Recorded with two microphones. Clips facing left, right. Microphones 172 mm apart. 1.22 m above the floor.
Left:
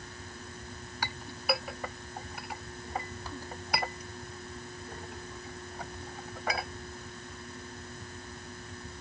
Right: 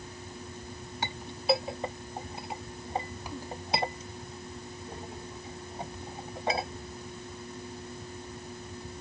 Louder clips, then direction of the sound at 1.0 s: Right 5 dB; 25° right (ahead or behind).